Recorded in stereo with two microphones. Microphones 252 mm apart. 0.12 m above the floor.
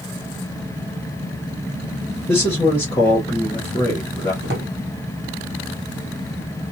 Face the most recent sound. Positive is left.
turn(degrees=-45)  # may be behind; listen again after turning